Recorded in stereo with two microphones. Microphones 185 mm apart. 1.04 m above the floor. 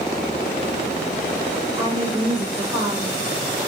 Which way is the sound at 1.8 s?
30° right (ahead or behind).